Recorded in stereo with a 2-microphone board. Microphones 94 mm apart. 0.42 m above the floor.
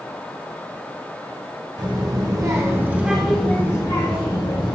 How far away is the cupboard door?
No cupboard door in this recording.